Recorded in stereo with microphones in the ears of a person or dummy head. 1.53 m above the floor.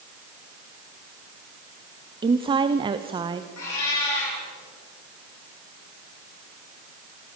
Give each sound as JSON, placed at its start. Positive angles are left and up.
{"t": 2.2, "sound": "a woman speaking", "side_deg": -20, "distance_m": 0.6}
{"t": 3.6, "sound": "a cat meowing", "side_deg": 70, "distance_m": 9.5}